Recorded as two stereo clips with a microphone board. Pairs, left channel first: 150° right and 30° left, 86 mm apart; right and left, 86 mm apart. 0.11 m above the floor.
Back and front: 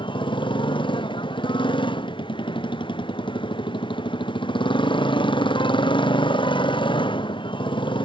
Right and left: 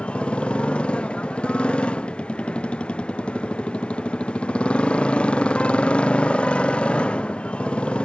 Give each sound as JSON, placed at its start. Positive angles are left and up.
{"t": 0.0, "sound": "a motorcycle", "azimuth_deg": -165}